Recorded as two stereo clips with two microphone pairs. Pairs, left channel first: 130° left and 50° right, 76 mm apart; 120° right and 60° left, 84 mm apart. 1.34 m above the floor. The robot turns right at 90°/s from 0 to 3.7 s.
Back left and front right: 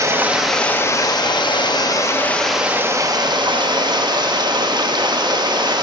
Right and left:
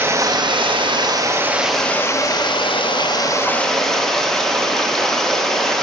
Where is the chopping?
No chopping in this recording.